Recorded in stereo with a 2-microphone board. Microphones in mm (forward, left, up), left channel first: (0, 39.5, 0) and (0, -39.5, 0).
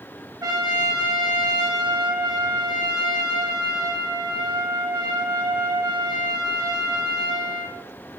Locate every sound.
0.4 s a trumpet: 50° right (ahead or behind), 1.7 m